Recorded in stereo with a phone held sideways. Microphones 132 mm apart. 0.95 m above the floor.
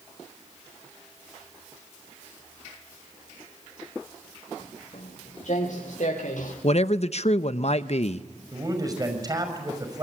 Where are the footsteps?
60° left (ahead or behind), 7 m; by 6.5 s 70° left (ahead or behind), 7 m.